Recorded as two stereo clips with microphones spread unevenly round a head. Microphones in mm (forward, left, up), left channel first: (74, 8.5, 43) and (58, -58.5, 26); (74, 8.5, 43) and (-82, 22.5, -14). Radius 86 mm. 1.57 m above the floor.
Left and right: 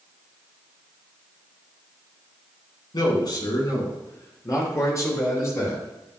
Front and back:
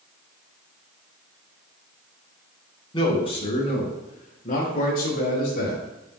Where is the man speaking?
60° left, 4 m; by 5.8 s 30° left, 7 m.